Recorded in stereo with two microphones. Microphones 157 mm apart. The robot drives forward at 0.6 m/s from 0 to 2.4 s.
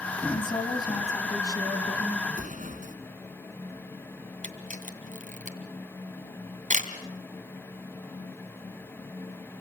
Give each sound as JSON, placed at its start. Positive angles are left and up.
{"t": 0.3, "sound": "a woman speaking", "side_deg": 30, "distance_m": 1.7}
{"t": 2.3, "sound": "an explosion", "side_deg": -60, "distance_m": 2.0}
{"t": 4.4, "sound": "a camera shutter", "side_deg": -55, "distance_m": 2.5}